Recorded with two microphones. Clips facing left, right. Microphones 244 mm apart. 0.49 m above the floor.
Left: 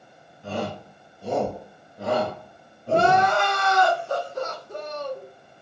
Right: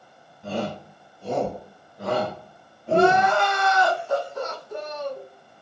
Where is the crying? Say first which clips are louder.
Right 2 dB; 45° left (ahead or behind), 2.0 m.